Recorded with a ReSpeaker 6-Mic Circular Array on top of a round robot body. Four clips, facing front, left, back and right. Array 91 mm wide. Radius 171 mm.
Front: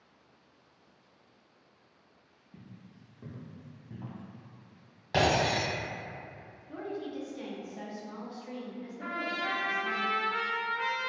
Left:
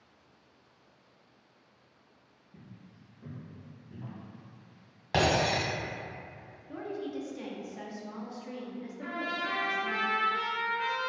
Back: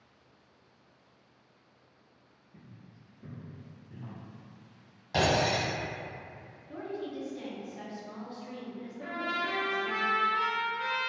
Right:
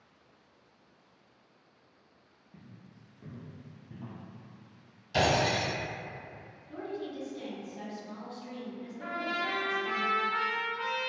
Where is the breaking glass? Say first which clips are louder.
Even, even; 75° left, 1.2 m.